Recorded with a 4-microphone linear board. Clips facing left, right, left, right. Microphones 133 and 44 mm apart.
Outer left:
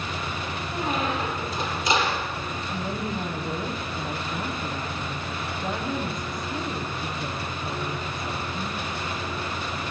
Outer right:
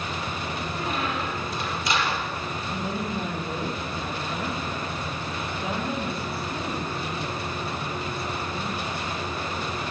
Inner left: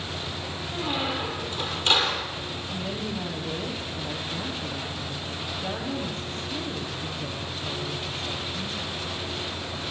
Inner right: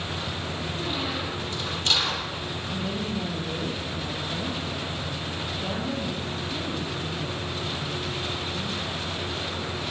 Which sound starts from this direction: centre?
A woman speaking, at 2.7 s.